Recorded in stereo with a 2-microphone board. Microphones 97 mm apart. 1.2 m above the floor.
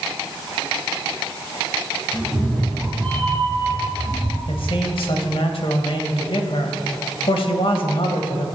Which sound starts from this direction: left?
A man speaking, at 4.5 s.